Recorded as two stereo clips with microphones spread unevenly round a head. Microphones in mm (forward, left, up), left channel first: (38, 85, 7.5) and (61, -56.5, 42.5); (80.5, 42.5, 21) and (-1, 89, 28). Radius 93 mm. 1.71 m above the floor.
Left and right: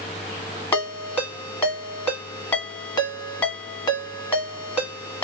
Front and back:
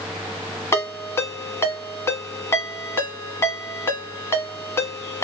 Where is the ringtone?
15° left, 1.3 m.